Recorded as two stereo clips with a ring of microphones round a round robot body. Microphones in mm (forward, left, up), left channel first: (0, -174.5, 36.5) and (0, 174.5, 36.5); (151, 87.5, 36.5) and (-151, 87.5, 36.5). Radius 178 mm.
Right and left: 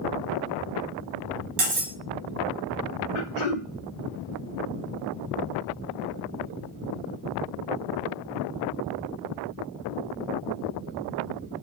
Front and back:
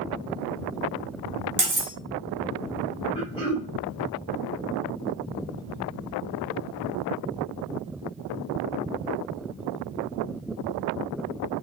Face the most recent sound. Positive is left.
turn(degrees=-75)